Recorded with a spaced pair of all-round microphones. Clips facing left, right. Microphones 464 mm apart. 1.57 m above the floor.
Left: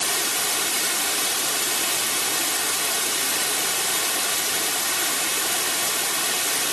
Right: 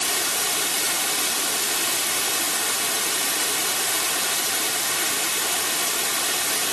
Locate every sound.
Only background noise.